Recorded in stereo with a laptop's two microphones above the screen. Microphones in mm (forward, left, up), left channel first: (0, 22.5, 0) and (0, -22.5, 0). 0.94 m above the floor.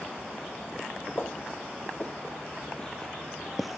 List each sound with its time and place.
1.2 s footsteps: 40° left (ahead or behind), 1.8 m; by 3.8 s 5° right (ahead or behind), 0.9 m